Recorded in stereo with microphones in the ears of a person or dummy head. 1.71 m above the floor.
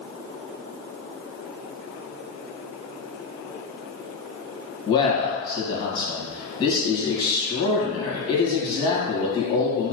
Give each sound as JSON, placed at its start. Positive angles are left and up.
{"t": 4.9, "sound": "a man speaking", "side_deg": 30, "distance_m": 1.5}